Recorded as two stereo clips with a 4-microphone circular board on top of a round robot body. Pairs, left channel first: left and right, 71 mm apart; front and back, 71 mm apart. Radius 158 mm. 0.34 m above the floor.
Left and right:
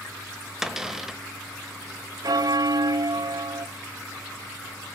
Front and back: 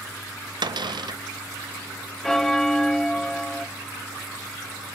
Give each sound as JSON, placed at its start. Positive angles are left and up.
{"t": 0.6, "sound": "a cupboard door", "azimuth_deg": -175, "distance_m": 0.9}
{"t": 2.2, "sound": "a bell", "azimuth_deg": -80, "distance_m": 0.7}